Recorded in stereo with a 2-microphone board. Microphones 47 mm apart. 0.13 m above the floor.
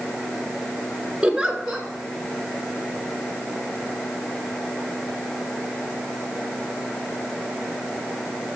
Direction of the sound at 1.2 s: 15° right (ahead or behind).